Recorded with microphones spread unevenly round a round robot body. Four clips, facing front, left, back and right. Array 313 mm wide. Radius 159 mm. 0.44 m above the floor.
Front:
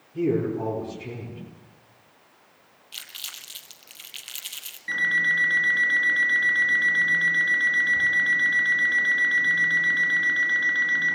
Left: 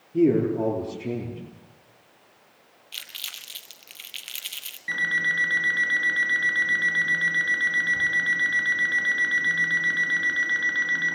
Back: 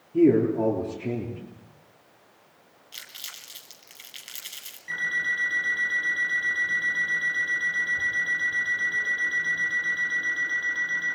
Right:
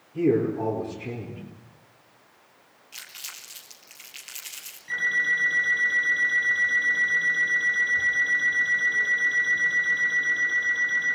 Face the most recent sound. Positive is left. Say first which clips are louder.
# even, front 5 dB
turn(degrees=60)